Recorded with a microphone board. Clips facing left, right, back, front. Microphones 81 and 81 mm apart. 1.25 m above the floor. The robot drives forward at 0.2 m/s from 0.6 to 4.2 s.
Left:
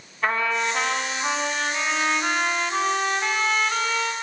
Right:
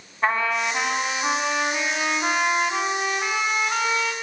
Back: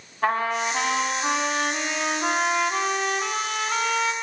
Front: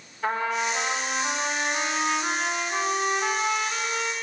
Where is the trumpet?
150° right, 7 m.